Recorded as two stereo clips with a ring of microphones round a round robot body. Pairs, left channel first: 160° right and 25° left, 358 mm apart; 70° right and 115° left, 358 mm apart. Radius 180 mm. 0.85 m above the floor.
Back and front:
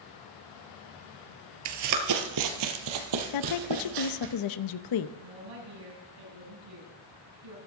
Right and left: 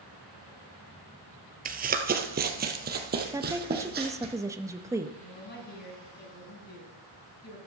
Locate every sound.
1.6 s running footsteps: 50° left, 1.2 m
3.3 s a woman speaking: 165° right, 0.7 m
5.2 s a woman speaking: 5° right, 5 m